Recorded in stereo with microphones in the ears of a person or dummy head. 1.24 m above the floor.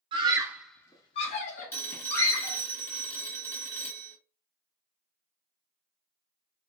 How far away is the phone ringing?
About 1.2 m.